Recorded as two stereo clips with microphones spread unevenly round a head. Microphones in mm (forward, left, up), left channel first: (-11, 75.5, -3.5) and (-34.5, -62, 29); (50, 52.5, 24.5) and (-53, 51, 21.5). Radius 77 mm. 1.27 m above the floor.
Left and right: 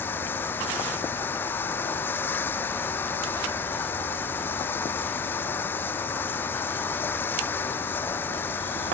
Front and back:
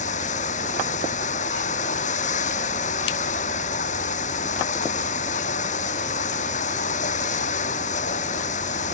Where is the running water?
Straight ahead.